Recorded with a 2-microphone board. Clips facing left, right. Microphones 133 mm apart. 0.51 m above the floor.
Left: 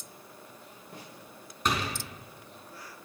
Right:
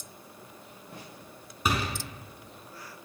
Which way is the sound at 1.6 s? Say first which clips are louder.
Right 1 dB; 5° right (ahead or behind).